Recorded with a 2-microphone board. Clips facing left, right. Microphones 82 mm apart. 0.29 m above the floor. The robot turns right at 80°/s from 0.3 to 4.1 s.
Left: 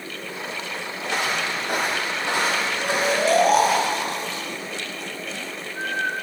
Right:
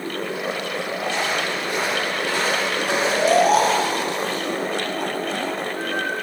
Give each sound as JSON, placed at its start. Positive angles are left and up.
{"t": 1.0, "sound": "footsteps", "side_deg": 75, "distance_m": 3.5}
{"t": 2.8, "sound": "snoring", "side_deg": -45, "distance_m": 1.7}